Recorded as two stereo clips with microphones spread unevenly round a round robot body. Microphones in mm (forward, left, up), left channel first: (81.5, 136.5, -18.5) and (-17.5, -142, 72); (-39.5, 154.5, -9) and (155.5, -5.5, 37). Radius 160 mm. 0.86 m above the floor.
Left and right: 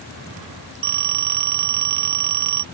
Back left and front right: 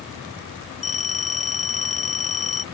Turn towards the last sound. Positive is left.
turn(degrees=-150)